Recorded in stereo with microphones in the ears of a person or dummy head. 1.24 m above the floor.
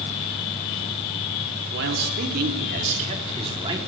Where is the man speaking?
65° right (ahead or behind), 4 m; by 3.8 s 25° right (ahead or behind), 4 m.